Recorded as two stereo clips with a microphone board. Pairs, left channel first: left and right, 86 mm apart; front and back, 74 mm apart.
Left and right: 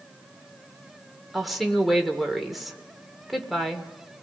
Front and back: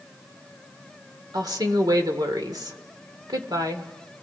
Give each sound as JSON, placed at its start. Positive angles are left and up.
{"t": 1.3, "sound": "a woman speaking", "azimuth_deg": 180, "distance_m": 1.9}